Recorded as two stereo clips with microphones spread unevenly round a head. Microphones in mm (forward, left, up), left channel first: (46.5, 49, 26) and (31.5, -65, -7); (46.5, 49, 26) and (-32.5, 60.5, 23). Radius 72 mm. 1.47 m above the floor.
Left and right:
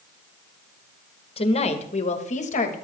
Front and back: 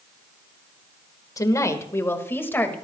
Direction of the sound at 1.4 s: 40° left.